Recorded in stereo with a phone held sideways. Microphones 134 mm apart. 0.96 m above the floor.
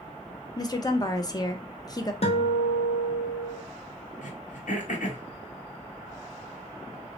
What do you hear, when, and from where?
0.6 s a woman speaking: 30° left (ahead or behind), 0.5 m
2.2 s a guitar: 50° left (ahead or behind), 0.9 m
4.2 s throat clearing: 80° left, 0.9 m